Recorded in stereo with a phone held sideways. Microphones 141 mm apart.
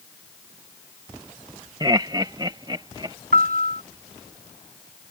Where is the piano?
85° right.